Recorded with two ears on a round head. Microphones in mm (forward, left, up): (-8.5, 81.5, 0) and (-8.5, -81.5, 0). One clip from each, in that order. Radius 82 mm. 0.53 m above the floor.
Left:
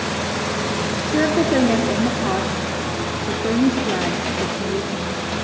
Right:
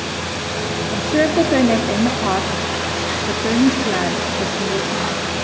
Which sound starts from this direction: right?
A woman speaking, at 0.9 s.